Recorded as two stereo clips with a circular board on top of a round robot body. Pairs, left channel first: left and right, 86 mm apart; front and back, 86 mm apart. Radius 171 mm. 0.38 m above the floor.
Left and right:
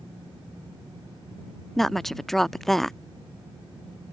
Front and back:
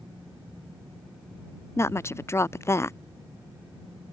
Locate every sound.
1.8 s a woman speaking: 5° left